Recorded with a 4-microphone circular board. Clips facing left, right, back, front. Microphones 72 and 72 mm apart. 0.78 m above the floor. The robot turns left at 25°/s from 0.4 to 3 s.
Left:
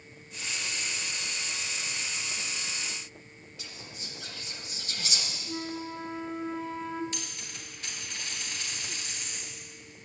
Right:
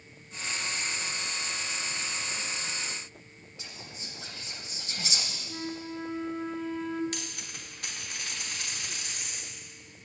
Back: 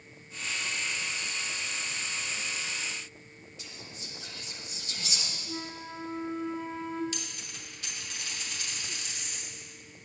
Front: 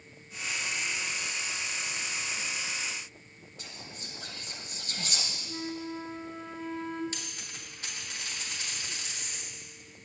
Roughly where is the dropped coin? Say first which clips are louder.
Right 1 dB, back 1 dB; ahead right.